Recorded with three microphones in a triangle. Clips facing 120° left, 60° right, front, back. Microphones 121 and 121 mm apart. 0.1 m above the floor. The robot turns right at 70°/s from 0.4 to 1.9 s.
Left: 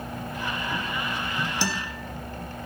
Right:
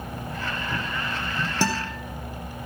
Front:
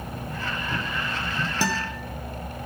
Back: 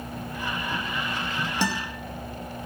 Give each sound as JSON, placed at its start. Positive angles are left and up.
{"t": 1.6, "sound": "a guitar", "azimuth_deg": -85, "distance_m": 2.0}